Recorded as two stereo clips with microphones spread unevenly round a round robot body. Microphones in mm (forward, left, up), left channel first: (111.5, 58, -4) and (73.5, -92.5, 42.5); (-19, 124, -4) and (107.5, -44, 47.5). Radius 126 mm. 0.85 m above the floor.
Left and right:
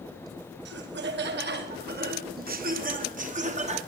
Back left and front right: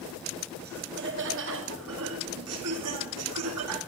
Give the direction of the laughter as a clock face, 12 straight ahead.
4 o'clock.